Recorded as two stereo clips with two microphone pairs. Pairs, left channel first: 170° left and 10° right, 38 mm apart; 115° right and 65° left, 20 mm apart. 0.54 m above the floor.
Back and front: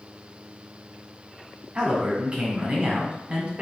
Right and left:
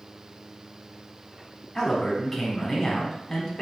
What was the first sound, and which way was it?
A man speaking, 60° right.